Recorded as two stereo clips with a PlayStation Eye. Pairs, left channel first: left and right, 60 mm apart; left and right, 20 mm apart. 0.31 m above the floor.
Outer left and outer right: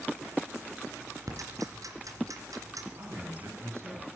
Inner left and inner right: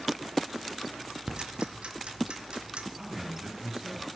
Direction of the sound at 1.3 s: 70° right (ahead or behind).